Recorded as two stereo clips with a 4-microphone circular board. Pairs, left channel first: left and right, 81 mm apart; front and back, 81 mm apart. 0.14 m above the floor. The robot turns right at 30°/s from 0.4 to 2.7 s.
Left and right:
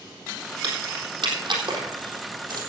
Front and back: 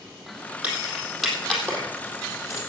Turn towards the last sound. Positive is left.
turn(degrees=-50)